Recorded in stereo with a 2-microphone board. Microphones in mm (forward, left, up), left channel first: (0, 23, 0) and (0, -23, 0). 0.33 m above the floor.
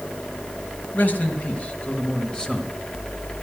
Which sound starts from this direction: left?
A man speaking, at 0.9 s.